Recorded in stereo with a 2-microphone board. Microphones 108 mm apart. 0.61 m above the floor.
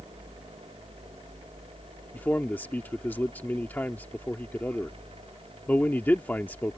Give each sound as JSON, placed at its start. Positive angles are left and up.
{"t": 2.1, "sound": "a man speaking", "side_deg": 15}